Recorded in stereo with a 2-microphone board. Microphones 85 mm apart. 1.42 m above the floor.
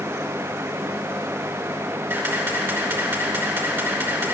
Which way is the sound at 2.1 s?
20° right (ahead or behind).